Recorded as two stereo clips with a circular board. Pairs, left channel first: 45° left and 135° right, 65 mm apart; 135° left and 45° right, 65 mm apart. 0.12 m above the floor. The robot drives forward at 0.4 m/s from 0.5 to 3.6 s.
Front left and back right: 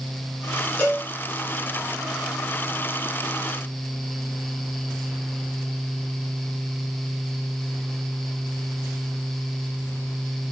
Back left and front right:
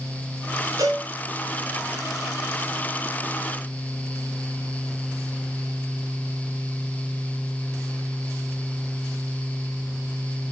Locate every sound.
0.8 s a cowbell: 20° right, 7 m